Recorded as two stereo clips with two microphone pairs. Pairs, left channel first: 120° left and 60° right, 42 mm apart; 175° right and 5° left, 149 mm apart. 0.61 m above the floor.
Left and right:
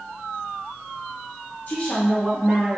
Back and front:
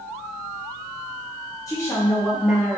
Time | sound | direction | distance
1.7 | a woman speaking | 130° left | 0.6 m